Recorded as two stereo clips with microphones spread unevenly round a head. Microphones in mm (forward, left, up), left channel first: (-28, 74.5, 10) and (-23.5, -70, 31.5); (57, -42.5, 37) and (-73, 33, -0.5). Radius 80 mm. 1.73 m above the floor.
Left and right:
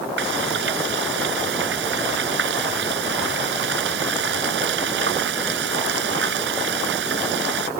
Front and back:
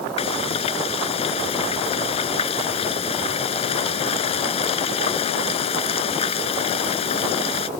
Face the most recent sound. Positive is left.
turn(degrees=-80)